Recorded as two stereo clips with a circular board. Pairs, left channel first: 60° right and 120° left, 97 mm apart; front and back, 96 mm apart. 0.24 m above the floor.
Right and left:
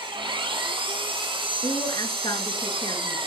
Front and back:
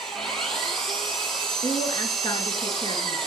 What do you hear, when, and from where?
0.0 s an engine running: 85° left, 6.5 m
1.6 s a woman speaking: 30° right, 4 m